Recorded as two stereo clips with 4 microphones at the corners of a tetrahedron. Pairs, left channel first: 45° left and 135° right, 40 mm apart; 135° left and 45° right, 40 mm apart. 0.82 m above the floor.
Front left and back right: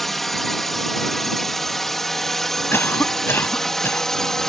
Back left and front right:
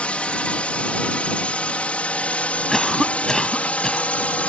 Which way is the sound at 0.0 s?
125° left.